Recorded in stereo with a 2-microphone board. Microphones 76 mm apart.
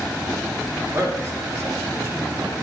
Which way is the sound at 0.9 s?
40° right (ahead or behind).